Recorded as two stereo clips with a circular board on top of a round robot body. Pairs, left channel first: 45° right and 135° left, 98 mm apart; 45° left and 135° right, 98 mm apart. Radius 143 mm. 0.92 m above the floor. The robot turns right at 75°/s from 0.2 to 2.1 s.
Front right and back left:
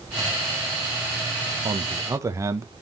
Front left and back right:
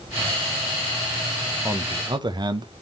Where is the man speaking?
160° left, 1.0 m; by 2.7 s 170° right, 1.0 m.